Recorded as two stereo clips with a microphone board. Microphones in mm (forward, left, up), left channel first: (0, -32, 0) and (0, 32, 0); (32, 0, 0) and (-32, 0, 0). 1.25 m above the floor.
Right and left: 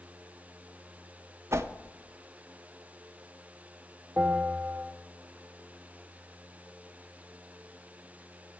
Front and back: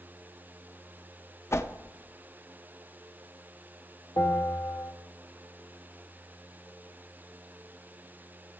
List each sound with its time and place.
1.5 s a whoosh: 45° left, 0.5 m
4.2 s a bell: 5° left, 1.5 m